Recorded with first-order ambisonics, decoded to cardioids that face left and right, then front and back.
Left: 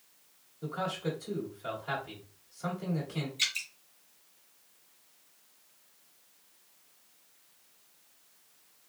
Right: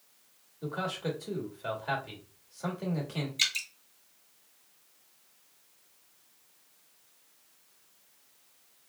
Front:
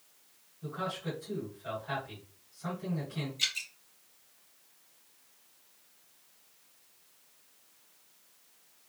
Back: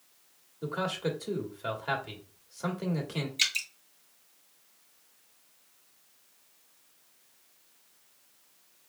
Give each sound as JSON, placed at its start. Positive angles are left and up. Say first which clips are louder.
{"t": 0.6, "sound": "a man speaking", "louder": "even, back 5 dB", "azimuth_deg": -160, "distance_m": 1.8}
{"t": 3.4, "sound": "dripping", "louder": "right 2 dB, back 4 dB", "azimuth_deg": -140, "distance_m": 1.6}